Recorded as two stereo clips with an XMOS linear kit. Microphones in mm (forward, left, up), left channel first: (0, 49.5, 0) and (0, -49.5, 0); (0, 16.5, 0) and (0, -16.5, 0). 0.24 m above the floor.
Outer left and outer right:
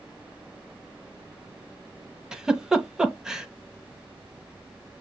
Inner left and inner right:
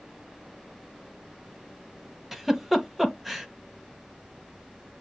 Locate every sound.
2.3 s a giggle: 10° right (ahead or behind), 0.8 m